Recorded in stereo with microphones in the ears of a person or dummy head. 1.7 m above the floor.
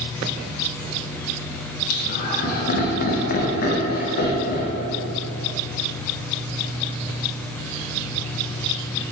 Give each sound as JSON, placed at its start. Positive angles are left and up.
{"t": 1.9, "sound": "laughter", "side_deg": 50, "distance_m": 0.6}